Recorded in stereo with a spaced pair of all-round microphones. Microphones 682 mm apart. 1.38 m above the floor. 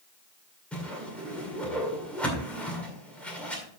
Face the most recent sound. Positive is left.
turn(degrees=0)  # may be behind; listen again after turning